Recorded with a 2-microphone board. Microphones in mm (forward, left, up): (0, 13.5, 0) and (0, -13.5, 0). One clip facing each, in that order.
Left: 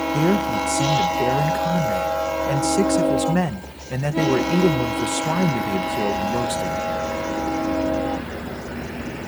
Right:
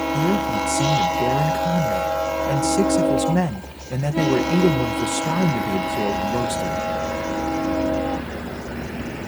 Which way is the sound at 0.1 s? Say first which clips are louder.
Left 2 dB; 60° left (ahead or behind).